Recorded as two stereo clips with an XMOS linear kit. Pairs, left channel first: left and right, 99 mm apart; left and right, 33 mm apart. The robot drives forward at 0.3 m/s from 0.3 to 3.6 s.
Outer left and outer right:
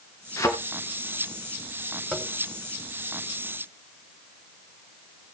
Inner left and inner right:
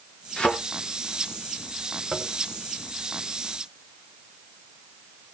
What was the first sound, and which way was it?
A thud, 30° left (ahead or behind).